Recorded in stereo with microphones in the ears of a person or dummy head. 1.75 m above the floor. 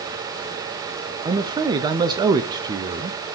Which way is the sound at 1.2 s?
20° right (ahead or behind).